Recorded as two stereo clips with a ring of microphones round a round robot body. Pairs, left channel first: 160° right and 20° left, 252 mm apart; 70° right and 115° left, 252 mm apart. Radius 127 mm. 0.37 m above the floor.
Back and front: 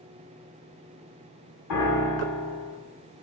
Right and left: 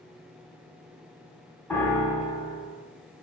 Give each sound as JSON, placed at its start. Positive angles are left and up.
{"t": 1.7, "sound": "a piano", "azimuth_deg": -150, "distance_m": 1.2}